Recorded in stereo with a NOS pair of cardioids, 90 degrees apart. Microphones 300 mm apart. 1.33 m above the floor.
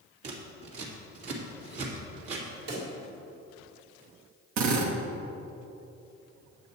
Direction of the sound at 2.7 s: 60° right.